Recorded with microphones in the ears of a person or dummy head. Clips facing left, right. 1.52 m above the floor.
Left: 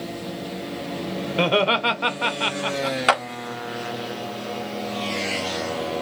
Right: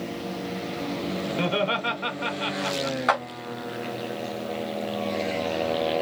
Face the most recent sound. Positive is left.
turn(degrees=40)  # may be behind; listen again after turning